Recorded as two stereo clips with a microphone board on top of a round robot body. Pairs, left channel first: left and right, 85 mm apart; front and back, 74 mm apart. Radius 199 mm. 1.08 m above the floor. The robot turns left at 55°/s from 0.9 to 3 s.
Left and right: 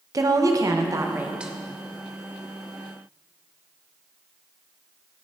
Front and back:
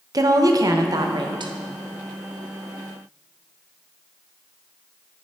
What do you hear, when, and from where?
0.1 s a woman speaking: 140° right, 0.9 m; by 1.5 s 175° right, 0.9 m